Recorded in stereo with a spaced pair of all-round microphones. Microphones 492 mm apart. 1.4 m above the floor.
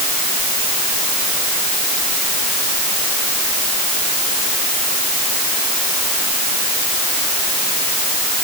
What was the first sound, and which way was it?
Only background noise.